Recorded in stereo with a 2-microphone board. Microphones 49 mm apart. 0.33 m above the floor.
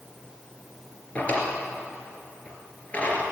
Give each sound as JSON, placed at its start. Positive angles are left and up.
{"t": 1.1, "sound": "a drawer", "side_deg": 30, "distance_m": 2.5}